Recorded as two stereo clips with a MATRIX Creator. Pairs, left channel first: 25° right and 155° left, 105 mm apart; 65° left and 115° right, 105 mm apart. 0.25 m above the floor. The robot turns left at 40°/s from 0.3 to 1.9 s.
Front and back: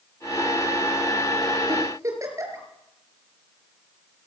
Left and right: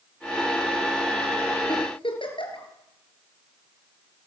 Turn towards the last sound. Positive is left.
turn(degrees=100)